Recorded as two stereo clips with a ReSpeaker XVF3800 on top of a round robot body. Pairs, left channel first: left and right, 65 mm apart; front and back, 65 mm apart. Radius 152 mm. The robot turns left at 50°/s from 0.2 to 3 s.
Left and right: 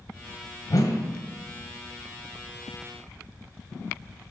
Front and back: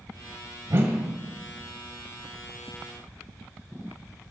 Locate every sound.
0.7 s a whoosh: 130° left, 1.2 m; by 1.1 s 110° left, 1.2 m